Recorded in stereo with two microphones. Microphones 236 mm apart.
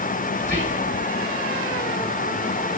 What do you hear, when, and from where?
0.4 s whispering: 35° right (ahead or behind), 2.5 m